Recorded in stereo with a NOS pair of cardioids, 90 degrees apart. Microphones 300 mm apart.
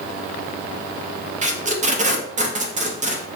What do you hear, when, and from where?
1.4 s tape being pulled: 25° right, 0.5 m